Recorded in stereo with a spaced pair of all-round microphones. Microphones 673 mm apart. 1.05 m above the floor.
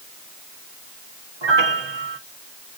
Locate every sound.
1.4 s a piano: 40° right (ahead or behind), 1.1 m